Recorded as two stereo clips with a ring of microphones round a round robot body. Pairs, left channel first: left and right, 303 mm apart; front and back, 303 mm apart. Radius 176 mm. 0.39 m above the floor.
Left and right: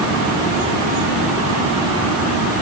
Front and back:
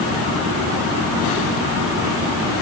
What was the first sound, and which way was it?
Only background noise.